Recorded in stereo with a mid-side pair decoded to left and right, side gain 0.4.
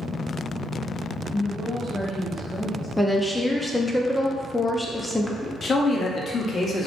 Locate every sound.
1.3 s a woman speaking: 40° left, 1.6 m; by 2.9 s 5° left, 0.9 m
3.0 s a woman speaking: 10° left, 0.5 m
5.6 s a man speaking: 45° left, 0.7 m